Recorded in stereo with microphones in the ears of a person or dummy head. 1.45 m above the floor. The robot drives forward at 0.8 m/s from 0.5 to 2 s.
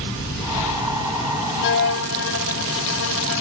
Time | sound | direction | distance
1.6 | a violin | 55° left (ahead or behind) | ?